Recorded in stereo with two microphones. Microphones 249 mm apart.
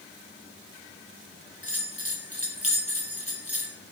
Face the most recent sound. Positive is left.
turn(degrees=-65)  # may be behind; listen again after turning